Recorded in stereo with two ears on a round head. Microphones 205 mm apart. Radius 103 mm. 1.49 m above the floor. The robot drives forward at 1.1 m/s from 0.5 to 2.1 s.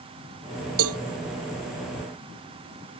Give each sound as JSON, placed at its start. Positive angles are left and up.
{"t": 0.8, "sound": "a cowbell", "side_deg": -70}